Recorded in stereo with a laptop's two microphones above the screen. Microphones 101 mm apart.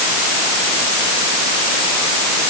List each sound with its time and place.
Only background noise.